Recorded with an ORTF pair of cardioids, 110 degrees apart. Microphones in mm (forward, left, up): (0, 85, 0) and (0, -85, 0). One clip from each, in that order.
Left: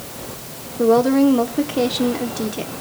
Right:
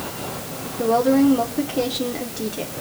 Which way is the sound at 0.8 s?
25° left.